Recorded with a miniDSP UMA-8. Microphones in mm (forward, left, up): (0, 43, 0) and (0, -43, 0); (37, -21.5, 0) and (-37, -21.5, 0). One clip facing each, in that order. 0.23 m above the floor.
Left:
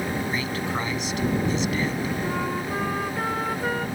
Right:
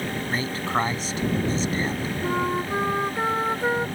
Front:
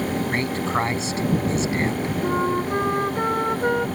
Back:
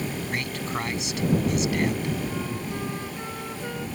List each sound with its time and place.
0.3 s a man speaking: 45° right
2.2 s a flute: 20° right